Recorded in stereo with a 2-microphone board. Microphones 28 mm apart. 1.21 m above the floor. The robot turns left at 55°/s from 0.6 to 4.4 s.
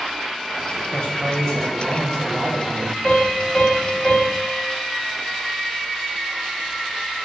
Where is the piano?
100° left, 1.3 m; by 4.6 s 25° left, 1.3 m.